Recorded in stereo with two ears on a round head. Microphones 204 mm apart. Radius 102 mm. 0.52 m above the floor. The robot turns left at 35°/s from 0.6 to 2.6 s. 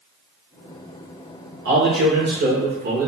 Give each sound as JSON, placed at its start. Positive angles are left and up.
{"t": 1.6, "sound": "a man speaking", "azimuth_deg": -90, "distance_m": 1.9}